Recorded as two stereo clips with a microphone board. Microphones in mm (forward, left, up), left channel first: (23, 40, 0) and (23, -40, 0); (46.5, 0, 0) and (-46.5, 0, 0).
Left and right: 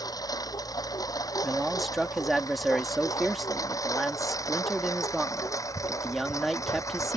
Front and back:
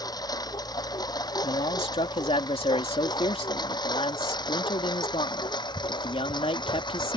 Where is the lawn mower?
45° left; by 7.2 s 40° left.